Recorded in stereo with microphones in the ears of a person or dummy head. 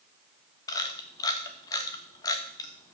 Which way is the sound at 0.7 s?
20° left (ahead or behind).